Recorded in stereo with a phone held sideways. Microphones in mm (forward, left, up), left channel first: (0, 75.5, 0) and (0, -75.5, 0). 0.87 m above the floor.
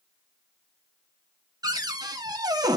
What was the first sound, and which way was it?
A cupboard door, 25° right (ahead or behind).